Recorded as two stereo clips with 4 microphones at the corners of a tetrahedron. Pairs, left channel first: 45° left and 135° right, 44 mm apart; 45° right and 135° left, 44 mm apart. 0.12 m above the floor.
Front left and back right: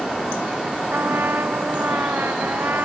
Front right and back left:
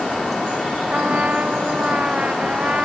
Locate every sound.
0.9 s a trumpet: 170° right